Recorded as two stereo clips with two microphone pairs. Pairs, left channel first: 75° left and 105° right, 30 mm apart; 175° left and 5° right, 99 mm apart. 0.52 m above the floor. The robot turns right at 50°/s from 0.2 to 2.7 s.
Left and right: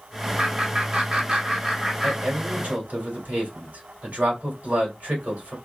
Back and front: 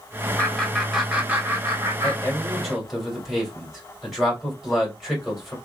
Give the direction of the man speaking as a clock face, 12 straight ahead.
4 o'clock.